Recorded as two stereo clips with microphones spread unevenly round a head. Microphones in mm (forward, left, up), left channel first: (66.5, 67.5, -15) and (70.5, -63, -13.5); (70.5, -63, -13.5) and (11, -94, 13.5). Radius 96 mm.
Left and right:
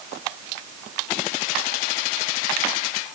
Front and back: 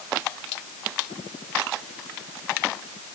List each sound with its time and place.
Only background noise.